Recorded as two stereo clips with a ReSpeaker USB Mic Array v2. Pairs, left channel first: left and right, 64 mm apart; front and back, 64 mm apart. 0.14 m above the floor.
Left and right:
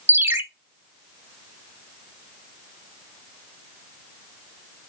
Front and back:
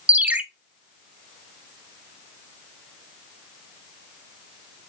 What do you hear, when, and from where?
0.1 s a ringtone: 125° right, 0.6 m